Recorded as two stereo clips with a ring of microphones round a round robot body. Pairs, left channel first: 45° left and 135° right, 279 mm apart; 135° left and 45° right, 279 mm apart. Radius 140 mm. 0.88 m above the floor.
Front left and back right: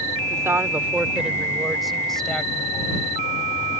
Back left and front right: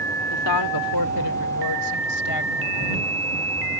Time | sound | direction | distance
0.3 | a woman speaking | 145° left | ?